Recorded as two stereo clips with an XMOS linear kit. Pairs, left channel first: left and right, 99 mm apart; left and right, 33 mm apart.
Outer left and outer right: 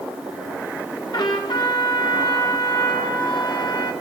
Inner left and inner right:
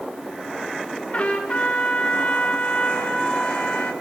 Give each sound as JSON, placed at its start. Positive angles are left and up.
{"t": 1.1, "sound": "a trumpet", "side_deg": 45, "distance_m": 1.8}